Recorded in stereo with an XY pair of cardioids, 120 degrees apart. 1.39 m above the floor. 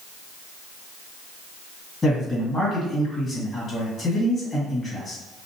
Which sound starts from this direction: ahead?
A man speaking, at 2.0 s.